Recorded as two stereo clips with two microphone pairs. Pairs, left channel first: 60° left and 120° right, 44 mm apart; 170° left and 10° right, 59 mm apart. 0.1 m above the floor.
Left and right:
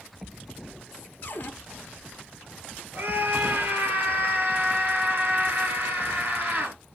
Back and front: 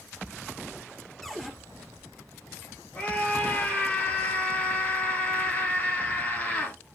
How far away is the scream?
About 2 m.